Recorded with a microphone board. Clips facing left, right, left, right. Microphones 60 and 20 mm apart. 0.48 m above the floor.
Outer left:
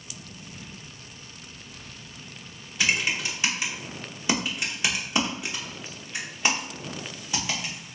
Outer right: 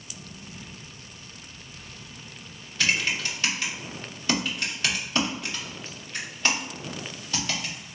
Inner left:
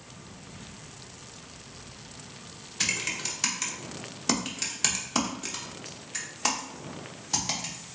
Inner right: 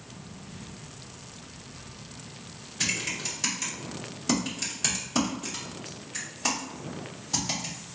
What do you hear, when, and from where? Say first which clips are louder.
2.8 s typing on a keyboard: even, even; 15° left (ahead or behind), 0.8 m